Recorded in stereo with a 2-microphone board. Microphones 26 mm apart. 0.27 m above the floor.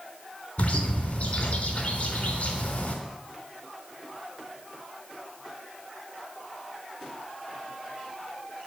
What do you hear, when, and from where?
0.6 s a bird: 55° left (ahead or behind), 3 m